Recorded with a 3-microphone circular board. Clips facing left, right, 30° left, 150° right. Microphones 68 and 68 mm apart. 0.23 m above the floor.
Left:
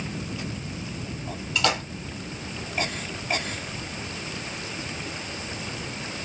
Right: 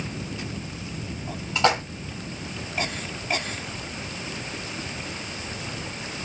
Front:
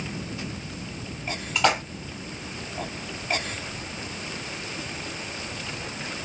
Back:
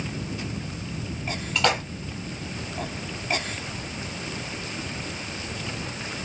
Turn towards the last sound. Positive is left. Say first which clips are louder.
# right 4 dB, front 1 dB
turn(degrees=-50)